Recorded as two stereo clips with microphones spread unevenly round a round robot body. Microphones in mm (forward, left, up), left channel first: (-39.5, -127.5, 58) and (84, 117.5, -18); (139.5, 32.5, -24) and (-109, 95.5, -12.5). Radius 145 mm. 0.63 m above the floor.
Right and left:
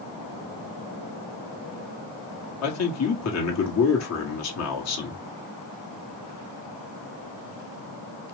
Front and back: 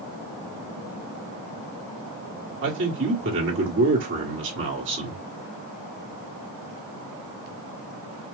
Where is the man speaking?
150° right, 1.7 m.